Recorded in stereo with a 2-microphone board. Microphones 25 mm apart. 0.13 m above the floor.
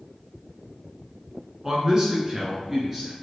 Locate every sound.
1.6 s a man speaking: 30° right (ahead or behind), 1.1 m; by 3.1 s 15° right (ahead or behind), 1.7 m